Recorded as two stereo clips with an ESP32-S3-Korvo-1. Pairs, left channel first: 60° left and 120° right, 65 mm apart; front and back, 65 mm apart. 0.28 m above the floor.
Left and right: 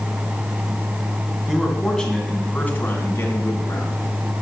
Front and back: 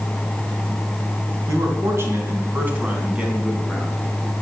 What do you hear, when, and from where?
1.5 s a man speaking: 150° left, 2.5 m; by 4.0 s 95° left, 3 m